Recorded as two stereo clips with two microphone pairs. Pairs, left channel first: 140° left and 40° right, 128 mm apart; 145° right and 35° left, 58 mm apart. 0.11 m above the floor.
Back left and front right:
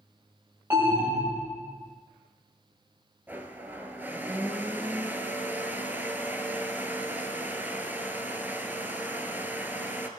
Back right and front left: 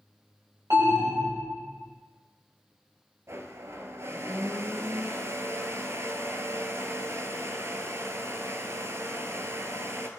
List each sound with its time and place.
0.7 s an alarm: 30° left, 4 m
3.3 s a blender: 30° left, 0.8 m